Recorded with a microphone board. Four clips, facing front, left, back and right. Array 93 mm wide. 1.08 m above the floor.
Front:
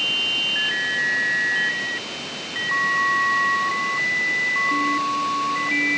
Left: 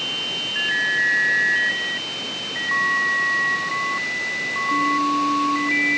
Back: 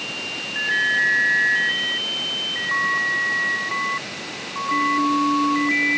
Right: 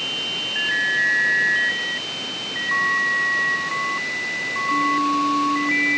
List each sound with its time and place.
Only background noise.